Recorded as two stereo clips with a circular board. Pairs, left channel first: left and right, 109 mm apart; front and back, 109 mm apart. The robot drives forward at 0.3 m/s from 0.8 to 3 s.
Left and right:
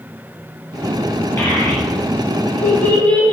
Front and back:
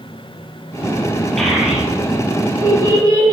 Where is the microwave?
I don't hear a microwave.